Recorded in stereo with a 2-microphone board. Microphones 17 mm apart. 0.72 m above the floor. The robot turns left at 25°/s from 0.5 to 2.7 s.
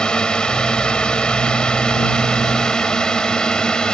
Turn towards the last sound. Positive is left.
turn(degrees=65)  # may be behind; listen again after turning